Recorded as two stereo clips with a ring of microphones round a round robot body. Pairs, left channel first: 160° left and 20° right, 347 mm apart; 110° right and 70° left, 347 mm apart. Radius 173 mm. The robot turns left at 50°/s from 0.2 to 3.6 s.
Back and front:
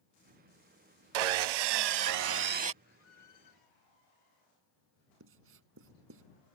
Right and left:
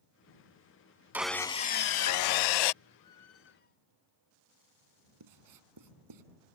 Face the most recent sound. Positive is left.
turn(degrees=30)